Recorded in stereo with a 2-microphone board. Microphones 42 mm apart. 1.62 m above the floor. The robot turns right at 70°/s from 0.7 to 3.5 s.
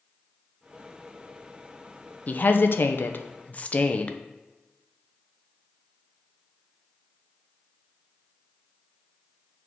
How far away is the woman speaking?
About 0.6 m.